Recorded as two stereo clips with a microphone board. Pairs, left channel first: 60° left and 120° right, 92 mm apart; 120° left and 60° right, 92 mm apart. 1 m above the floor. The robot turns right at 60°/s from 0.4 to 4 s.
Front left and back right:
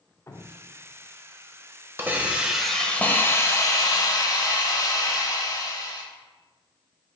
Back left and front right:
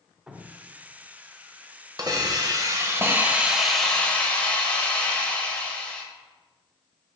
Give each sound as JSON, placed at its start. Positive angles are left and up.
{"t": 0.3, "sound": "dripping", "azimuth_deg": 20, "distance_m": 0.6}
{"t": 2.0, "sound": "a hiss", "azimuth_deg": -70, "distance_m": 0.9}